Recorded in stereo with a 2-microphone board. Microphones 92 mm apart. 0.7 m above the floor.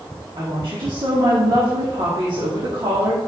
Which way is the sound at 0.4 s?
55° right (ahead or behind).